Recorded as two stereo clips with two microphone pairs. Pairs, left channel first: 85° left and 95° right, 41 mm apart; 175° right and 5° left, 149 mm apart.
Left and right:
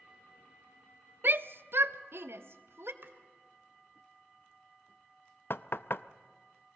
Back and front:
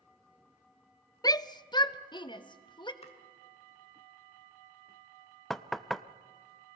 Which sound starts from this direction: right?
A shout, at 1.2 s.